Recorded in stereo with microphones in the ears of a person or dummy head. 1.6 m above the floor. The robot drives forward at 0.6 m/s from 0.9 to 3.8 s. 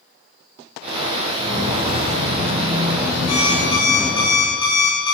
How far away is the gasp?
No gasp in this recording.